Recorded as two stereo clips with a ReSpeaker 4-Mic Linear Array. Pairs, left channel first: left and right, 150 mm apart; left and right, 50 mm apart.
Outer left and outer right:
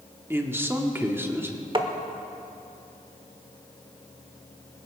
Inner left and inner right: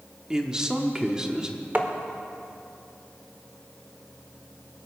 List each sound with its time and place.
0.3 s a man speaking: 15° right (ahead or behind), 1.1 m
1.8 s tapping: 35° right (ahead or behind), 1.0 m